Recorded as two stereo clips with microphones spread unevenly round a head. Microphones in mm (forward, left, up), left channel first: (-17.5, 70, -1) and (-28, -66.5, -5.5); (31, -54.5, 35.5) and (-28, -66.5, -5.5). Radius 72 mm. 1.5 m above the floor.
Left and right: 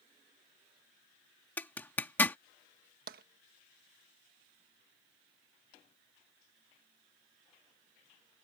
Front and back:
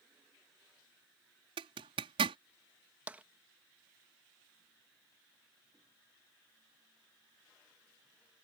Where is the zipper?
160° left.